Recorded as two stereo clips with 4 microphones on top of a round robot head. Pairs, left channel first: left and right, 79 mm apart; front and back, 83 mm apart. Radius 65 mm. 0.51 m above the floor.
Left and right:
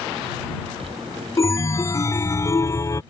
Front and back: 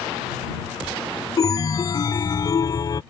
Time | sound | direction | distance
1.4 | a chime | 40° left | ?